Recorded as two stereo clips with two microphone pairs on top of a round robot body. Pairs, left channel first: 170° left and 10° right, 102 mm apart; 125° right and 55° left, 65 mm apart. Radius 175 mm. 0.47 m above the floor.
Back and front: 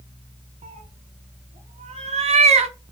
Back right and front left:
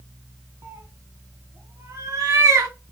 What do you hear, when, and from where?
0.6 s a cat meowing: 5° left, 0.6 m